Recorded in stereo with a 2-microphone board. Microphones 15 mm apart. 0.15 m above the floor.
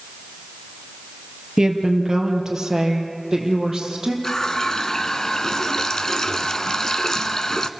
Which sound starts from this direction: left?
A running tap, at 4.2 s.